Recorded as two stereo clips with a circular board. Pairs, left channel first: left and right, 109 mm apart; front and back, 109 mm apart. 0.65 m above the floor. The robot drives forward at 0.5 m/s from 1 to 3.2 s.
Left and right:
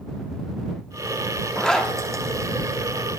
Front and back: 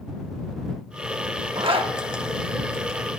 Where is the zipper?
170° left, 1.0 m; by 3.2 s 175° left, 1.7 m.